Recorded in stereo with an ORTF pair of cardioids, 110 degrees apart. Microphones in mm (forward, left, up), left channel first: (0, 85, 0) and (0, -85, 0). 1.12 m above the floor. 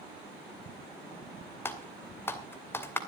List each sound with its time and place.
1.6 s typing on a keyboard: 15° left, 2.5 m